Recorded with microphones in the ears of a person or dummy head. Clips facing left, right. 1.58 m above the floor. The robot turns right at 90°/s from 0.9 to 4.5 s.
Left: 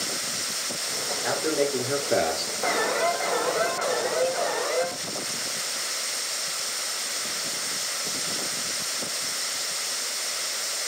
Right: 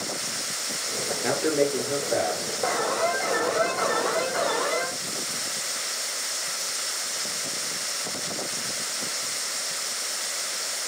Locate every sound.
1.2 s a man speaking: 45° right, 5 m; by 2.5 s 75° left, 5 m
2.6 s an alarm: 125° left, 5.5 m; by 4.9 s 65° right, 5.5 m